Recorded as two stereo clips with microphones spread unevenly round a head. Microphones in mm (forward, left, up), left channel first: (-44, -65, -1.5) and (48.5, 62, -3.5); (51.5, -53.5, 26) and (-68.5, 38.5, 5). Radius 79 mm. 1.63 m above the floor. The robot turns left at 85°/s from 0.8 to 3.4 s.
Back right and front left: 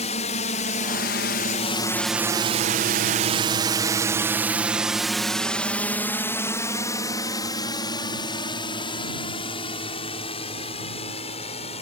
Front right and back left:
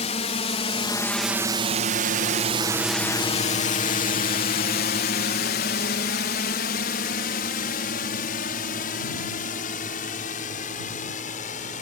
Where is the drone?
80° right; by 11.8 s 75° right.